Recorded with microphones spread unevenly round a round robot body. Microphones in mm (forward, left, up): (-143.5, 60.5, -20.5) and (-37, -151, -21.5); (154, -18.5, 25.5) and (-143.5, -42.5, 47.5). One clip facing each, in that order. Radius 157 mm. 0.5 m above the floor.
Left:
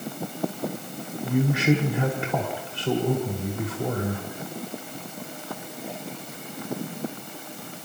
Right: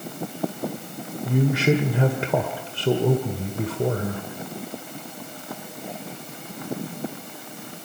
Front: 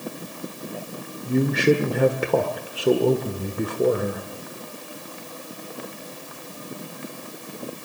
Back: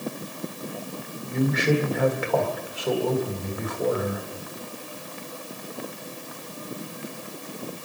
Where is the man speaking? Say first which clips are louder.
Right 1 dB, front 4 dB; 40° right, 1.7 m.